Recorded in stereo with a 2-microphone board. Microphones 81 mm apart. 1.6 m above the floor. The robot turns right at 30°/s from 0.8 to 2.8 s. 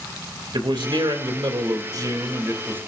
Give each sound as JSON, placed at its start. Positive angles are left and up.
{"t": 0.5, "sound": "a man speaking", "azimuth_deg": -85, "distance_m": 3.0}